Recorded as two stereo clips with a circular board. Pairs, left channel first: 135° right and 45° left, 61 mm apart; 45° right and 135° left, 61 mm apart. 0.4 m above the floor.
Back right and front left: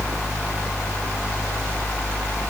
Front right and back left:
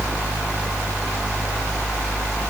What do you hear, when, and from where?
Only background noise.